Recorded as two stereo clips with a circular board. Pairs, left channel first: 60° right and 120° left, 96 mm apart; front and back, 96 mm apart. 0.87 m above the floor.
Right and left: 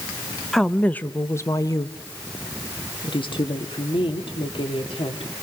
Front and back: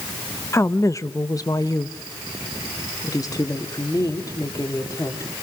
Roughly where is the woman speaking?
Ahead left.